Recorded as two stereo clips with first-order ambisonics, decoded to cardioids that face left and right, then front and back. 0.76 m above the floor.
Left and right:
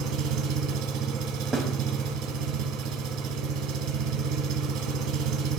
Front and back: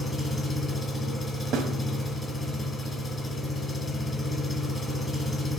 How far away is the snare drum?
About 0.8 m.